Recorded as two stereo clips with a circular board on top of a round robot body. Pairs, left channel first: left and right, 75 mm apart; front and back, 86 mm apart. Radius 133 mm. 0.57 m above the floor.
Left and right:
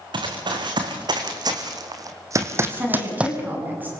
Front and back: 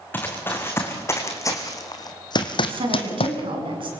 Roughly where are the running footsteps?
Right.